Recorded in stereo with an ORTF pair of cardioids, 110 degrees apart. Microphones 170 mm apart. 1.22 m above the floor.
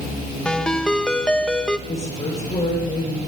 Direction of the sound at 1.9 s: 35° left.